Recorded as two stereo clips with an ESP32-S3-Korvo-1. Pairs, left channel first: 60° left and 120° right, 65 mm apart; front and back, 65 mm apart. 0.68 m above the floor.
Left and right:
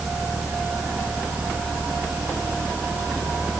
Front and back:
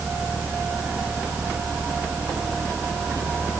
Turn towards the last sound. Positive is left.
No sound to turn to.